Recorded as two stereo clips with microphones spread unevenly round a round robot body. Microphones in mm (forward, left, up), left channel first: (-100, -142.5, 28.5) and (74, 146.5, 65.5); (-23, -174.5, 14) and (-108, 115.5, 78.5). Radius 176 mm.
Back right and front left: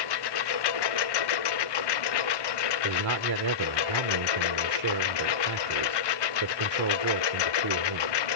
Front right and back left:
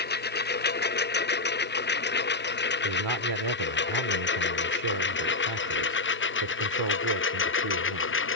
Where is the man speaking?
85° left.